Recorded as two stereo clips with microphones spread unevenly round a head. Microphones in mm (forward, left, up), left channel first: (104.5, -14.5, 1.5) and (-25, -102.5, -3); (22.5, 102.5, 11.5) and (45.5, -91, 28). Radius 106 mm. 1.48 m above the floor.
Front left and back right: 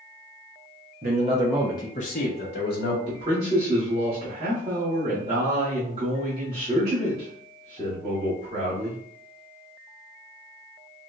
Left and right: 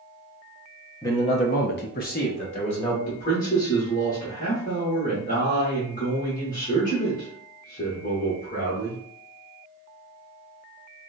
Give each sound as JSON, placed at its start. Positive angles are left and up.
{"t": 1.0, "sound": "a man speaking", "azimuth_deg": 175, "distance_m": 0.8}
{"t": 3.1, "sound": "a man speaking", "azimuth_deg": 150, "distance_m": 1.0}